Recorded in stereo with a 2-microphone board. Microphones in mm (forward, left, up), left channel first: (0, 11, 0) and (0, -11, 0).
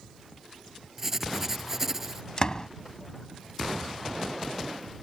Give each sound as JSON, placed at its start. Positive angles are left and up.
{"t": 1.0, "sound": "writing", "side_deg": -15}
{"t": 2.4, "sound": "a door slam", "side_deg": 30}